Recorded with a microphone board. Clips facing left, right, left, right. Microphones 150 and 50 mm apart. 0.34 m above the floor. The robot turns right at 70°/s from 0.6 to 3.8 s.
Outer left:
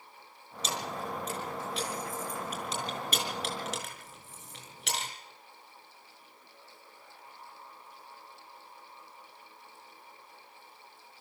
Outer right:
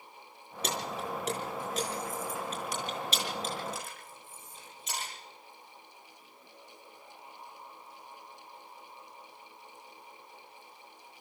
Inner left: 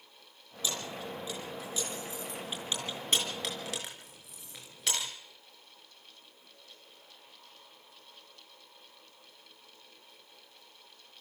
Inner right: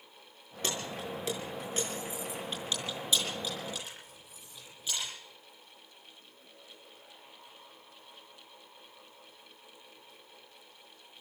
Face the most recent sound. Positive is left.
turn(degrees=80)